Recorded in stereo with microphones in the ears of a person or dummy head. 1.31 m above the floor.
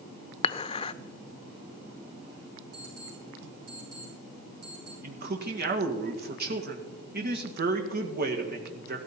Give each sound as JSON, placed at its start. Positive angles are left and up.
{"t": 0.4, "sound": "dishes clattering", "side_deg": 35, "distance_m": 0.5}
{"t": 2.7, "sound": "an alarm clock", "side_deg": -45, "distance_m": 8.0}
{"t": 5.0, "sound": "a man speaking", "side_deg": -50, "distance_m": 1.8}